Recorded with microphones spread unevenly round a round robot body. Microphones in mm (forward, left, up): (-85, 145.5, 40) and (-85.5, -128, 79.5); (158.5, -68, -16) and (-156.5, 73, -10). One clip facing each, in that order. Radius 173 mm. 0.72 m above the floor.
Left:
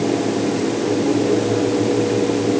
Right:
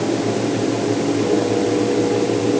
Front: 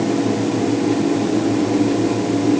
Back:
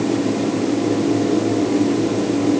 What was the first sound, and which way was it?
Only background noise.